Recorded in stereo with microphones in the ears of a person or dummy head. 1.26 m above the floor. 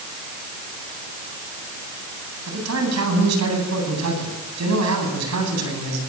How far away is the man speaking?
About 9 m.